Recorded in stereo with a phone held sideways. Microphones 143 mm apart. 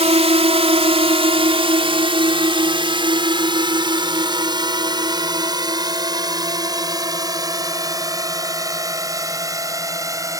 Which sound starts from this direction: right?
A drone, at 0.0 s.